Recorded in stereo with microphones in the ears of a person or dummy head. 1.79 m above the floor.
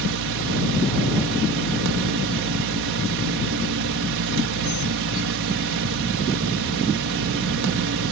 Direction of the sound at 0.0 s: 65° right (ahead or behind).